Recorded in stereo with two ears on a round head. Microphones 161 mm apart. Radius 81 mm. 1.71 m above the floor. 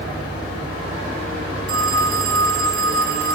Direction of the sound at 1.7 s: 75° right (ahead or behind).